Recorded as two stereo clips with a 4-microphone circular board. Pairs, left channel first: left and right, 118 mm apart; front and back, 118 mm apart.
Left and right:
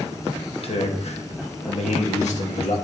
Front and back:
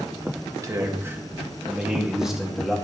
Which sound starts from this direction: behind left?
A man speaking, at 0.5 s.